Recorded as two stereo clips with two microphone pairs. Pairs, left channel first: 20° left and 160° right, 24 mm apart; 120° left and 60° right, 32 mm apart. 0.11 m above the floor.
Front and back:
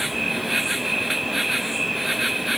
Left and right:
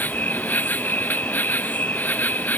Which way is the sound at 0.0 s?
120° left.